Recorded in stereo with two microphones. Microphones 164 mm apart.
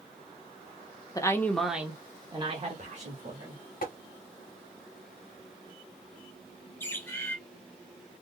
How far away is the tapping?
About 1.2 m.